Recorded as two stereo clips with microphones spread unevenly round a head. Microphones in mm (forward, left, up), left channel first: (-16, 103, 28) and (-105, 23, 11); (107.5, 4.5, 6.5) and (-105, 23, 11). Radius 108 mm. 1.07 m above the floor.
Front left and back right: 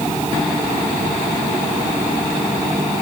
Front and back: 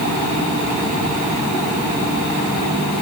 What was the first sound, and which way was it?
Only background noise.